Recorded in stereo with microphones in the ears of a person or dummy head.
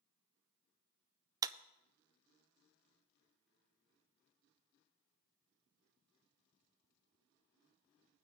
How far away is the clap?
About 0.5 m.